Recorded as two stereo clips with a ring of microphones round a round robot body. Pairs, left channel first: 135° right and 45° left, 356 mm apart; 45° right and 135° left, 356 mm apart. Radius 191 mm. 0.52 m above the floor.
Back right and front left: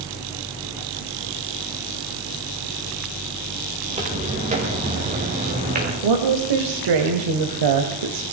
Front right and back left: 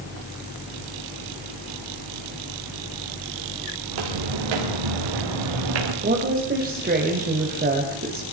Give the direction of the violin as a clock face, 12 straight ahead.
No violin in this recording.